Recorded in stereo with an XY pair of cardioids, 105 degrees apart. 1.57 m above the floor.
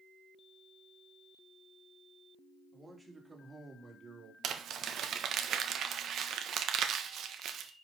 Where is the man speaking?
15° right, 3.5 m; by 4.3 s 55° right, 2.5 m.